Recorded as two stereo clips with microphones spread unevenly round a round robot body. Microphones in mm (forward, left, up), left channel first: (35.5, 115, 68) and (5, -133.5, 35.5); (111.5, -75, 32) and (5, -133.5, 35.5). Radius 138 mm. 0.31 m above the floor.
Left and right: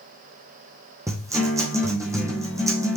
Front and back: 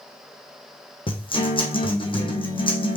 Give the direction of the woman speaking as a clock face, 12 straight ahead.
I don't hear a woman speaking.